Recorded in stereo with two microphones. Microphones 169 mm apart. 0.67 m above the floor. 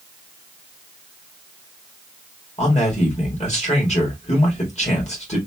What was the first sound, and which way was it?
A man speaking, 40° left (ahead or behind).